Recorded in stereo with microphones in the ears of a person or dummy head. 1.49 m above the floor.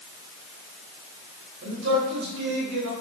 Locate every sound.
1.6 s a man speaking: 60° right (ahead or behind), 2.5 m; by 2.9 s 80° right, 3.5 m